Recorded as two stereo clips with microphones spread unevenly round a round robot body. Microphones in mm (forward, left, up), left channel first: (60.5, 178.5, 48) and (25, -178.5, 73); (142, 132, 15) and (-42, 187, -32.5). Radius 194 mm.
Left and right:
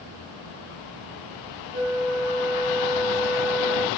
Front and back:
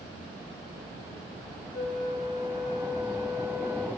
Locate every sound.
1.7 s a flute: 55° right, 3 m